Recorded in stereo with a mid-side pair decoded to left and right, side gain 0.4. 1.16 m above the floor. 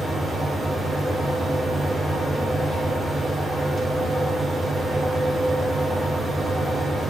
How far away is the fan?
About 0.9 m.